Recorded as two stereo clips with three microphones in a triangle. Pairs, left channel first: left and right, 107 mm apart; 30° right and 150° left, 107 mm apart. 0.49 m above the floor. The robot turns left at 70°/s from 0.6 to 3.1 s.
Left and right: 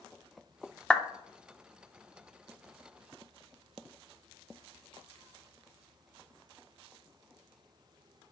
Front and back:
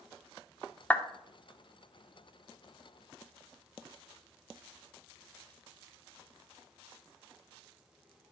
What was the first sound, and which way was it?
A clap, 15° left.